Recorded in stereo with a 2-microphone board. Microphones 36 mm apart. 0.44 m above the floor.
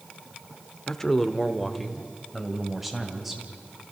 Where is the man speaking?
15° left (ahead or behind), 1.1 m; by 3.4 s 5° right (ahead or behind), 3 m.